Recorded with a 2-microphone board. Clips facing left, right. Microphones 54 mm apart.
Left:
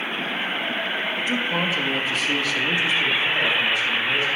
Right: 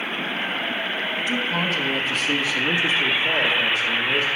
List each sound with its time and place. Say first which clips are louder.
1.2 s a man speaking: even; 35° left (ahead or behind), 1.9 m; by 4.3 s 60° right (ahead or behind), 2.5 m